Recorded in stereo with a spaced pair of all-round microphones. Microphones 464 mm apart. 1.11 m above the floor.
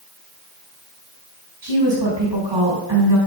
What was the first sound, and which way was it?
A woman speaking, 60° right (ahead or behind).